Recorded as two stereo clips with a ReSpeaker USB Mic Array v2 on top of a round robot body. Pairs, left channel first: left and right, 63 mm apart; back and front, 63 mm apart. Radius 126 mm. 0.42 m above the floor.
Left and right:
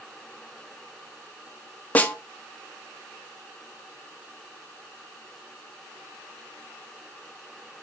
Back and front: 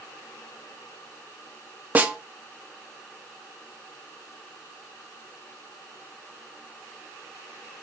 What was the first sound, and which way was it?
A snare drum, 45° left.